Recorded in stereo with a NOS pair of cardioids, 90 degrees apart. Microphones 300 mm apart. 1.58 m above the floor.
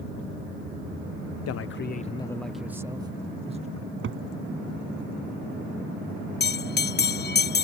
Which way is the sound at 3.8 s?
45° right.